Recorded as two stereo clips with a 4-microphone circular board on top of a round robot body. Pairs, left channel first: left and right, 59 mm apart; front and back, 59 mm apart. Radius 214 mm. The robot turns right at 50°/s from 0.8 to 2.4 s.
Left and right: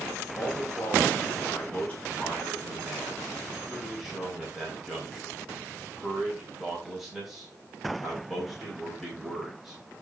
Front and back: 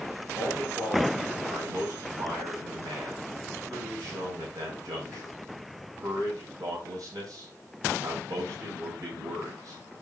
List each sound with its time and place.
0.3 s a man speaking: 105° left, 5.5 m; by 9.8 s 175° right, 5.5 m